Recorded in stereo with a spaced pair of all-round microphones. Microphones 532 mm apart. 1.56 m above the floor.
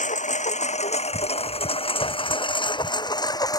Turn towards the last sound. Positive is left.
turn(degrees=5)  # may be behind; listen again after turning